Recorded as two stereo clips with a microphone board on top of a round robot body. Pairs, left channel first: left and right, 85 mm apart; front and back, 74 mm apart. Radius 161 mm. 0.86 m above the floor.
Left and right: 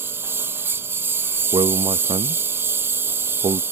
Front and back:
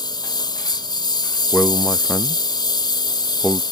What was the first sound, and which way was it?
A lawn mower, 25° right.